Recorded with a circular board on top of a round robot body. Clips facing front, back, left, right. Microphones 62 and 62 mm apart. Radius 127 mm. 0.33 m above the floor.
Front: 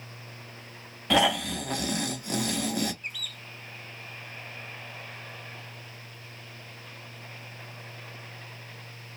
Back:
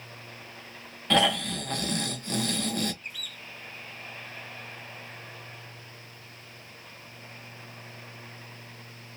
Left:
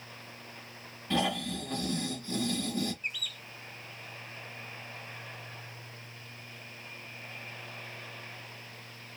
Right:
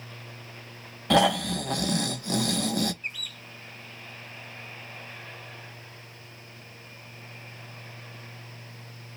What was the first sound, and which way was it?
Snoring, 80° right.